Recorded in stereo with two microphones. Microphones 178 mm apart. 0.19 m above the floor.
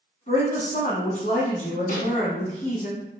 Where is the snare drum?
50° left (ahead or behind), 1.2 m.